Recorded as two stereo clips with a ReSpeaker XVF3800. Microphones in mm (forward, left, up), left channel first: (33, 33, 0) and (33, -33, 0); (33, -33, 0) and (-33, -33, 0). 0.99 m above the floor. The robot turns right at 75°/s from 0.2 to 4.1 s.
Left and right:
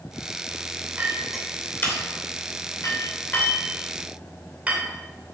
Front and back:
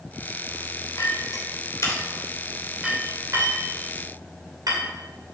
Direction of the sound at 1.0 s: 30° right.